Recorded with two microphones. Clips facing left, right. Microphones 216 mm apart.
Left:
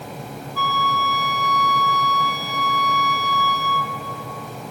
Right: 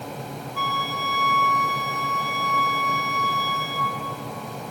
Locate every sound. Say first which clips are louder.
0.6 s a flute: left 7 dB; 55° right (ahead or behind), 2 m